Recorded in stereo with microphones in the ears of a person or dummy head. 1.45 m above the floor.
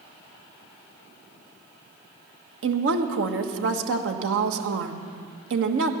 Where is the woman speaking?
80° right, 1.3 m.